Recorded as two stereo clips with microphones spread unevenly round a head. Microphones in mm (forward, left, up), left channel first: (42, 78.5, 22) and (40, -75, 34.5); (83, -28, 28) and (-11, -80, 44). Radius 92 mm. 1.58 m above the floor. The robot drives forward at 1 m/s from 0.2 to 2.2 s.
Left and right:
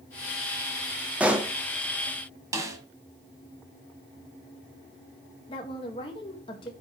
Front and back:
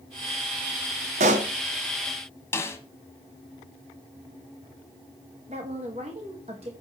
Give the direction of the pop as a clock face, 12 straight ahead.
6 o'clock.